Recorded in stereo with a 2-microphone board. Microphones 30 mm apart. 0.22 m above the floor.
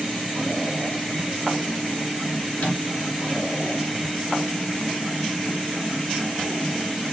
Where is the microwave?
60° left (ahead or behind), 2.5 m.